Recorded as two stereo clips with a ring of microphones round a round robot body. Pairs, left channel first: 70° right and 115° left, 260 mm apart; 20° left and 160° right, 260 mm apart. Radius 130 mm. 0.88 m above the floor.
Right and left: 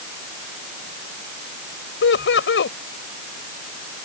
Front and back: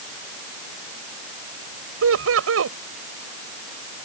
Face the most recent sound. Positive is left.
turn(degrees=-115)